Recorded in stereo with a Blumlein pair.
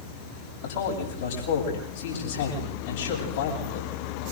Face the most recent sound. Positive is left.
turn(degrees=60)